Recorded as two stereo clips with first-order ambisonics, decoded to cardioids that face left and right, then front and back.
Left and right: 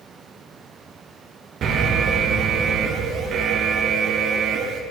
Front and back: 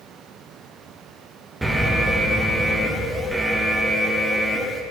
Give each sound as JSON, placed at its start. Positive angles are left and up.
{"t": 1.6, "sound": "an alarm", "azimuth_deg": -105, "distance_m": 0.6}